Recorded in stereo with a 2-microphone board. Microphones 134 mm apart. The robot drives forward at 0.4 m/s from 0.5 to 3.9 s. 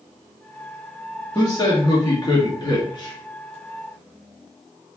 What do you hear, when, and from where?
1.4 s a man speaking: 30° left (ahead or behind), 2.5 m; by 3.1 s 35° left (ahead or behind), 2 m